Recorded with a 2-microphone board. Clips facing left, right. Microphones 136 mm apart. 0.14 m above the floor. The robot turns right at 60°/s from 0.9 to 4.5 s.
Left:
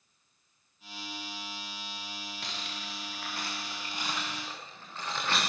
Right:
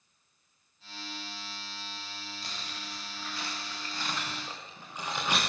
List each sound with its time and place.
2.4 s cutlery clinking: 70° left (ahead or behind), 9.5 m; by 5.4 s 15° right (ahead or behind), 9.5 m